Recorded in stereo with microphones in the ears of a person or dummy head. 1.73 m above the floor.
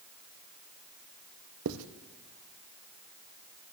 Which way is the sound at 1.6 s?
70° right (ahead or behind).